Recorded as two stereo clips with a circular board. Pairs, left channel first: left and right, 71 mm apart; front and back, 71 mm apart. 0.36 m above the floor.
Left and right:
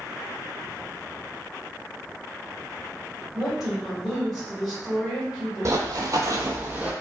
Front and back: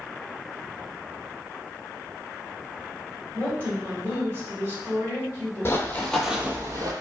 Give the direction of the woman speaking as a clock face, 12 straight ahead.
6 o'clock.